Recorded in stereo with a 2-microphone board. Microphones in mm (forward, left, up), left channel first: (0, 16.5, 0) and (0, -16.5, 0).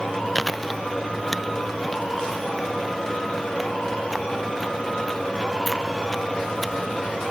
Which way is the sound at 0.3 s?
Centre (ahead or behind).